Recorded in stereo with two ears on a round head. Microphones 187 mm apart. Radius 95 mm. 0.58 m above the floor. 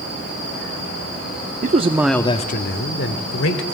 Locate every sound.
1.6 s a man speaking: 40° right (ahead or behind), 0.9 m; by 3.8 s 75° left (ahead or behind), 2 m